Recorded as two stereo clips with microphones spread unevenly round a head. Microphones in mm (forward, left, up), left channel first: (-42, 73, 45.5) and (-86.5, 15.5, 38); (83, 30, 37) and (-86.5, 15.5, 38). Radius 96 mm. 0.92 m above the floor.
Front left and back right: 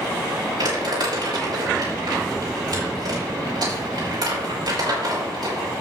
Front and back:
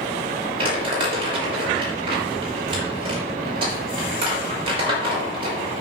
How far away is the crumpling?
About 5.5 m.